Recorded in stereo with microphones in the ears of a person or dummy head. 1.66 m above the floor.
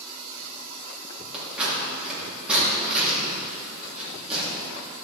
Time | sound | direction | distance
1.3 | scissors | 5° right (ahead or behind) | 4 m